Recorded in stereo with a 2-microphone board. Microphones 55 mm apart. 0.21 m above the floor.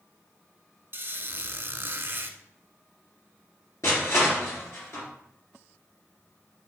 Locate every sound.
0.9 s a squeak: 45° right (ahead or behind), 1.0 m
3.8 s crushing: 60° left (ahead or behind), 3.5 m